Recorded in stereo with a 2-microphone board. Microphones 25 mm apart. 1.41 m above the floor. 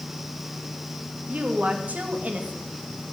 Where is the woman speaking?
80° right, 2.5 m.